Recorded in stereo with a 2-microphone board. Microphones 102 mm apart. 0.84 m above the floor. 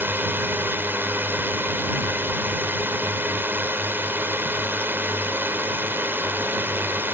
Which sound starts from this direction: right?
A drone, at 0.0 s.